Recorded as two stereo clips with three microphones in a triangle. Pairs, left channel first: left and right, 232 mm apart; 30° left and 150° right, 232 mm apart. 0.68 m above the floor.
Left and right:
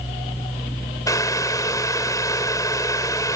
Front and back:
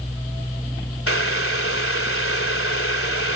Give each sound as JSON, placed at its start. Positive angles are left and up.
{"t": 1.1, "sound": "boiling", "azimuth_deg": 15}